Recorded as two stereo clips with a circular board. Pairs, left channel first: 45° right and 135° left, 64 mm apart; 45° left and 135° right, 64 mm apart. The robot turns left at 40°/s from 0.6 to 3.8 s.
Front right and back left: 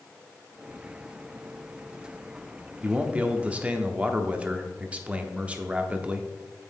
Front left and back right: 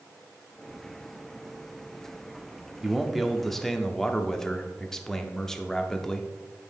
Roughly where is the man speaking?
Behind left.